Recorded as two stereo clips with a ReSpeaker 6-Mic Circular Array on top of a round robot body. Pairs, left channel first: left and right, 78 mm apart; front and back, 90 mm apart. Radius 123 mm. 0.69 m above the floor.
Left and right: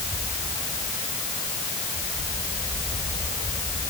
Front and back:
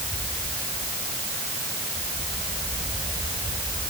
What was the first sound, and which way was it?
Only background noise.